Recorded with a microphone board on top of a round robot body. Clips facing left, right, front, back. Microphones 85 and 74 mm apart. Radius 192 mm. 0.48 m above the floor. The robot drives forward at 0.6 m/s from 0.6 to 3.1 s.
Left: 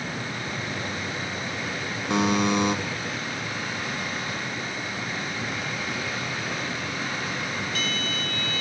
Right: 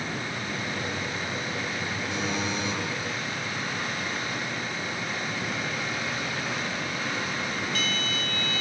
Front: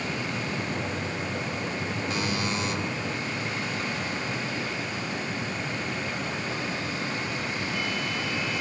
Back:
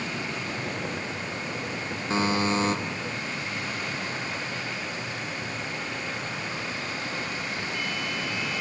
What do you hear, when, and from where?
2.1 s a buzzer: 115° left, 3 m; by 2.8 s 125° left, 3.5 m